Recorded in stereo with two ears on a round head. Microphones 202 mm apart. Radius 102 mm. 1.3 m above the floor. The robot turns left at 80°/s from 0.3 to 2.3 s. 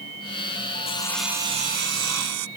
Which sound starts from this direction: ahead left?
Sawing, at 0.8 s.